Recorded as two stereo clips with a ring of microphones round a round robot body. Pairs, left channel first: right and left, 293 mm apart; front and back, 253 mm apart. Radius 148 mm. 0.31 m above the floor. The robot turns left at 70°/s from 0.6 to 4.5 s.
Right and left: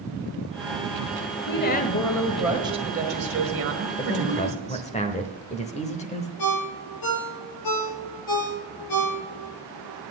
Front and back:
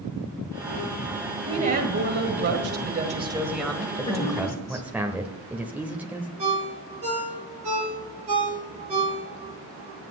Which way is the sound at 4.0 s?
70° right.